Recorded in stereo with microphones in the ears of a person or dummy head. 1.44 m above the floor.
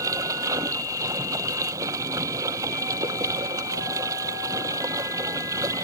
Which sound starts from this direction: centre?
Running water, at 0.0 s.